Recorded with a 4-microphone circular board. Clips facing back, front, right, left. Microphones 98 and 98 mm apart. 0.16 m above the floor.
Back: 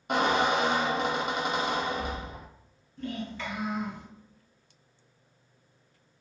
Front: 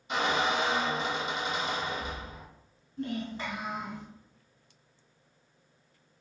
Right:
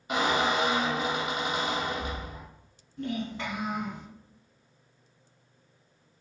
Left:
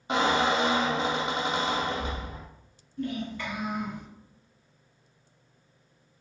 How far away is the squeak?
About 0.5 m.